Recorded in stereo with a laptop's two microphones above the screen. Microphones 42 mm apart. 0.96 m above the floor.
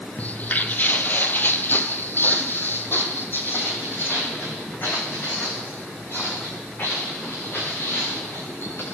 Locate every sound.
0.2 s footsteps: 40° left (ahead or behind), 1.2 m; by 8.8 s 55° left (ahead or behind), 6.5 m